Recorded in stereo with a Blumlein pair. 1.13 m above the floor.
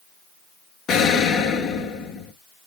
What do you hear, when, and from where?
0.9 s an explosion: 25° left, 0.7 m